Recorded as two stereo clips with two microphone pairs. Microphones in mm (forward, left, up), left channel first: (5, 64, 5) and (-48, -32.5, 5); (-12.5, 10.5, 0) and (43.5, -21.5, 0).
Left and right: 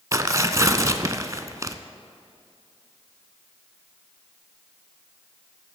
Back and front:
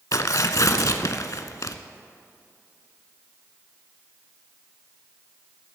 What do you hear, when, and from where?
0.1 s tearing paper: straight behind, 0.5 m